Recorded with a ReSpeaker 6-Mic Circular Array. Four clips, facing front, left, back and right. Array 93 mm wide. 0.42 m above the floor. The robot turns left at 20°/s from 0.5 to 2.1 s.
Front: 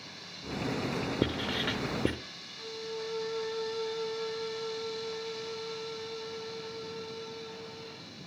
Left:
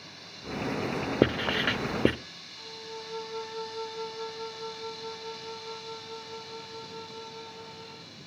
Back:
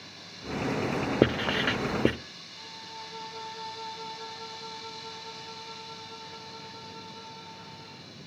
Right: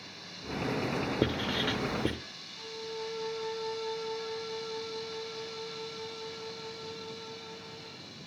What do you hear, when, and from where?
1.2 s writing: 140° left, 0.6 m; by 2.1 s 120° left, 0.6 m
2.5 s a violin: 25° right, 6.5 m